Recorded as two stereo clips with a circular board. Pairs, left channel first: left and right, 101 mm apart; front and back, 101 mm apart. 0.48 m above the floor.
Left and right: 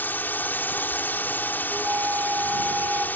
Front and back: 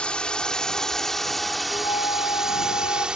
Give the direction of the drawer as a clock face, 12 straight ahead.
I don't hear a drawer.